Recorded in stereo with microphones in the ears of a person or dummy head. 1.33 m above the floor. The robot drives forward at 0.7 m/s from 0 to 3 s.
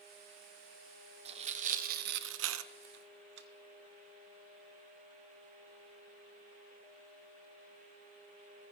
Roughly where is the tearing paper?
Right.